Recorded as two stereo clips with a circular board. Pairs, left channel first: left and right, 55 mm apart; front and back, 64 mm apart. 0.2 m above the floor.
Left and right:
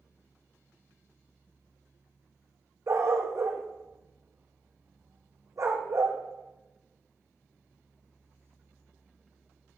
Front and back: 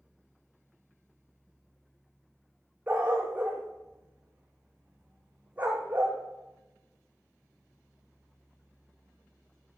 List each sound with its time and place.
2.9 s a dog barking: 110° right, 3.5 m